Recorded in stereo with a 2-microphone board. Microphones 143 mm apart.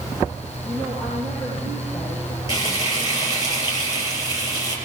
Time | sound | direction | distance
0.7 | a woman speaking | 5° left (ahead or behind) | 9.5 m
2.5 | frying | 30° left (ahead or behind) | 7.5 m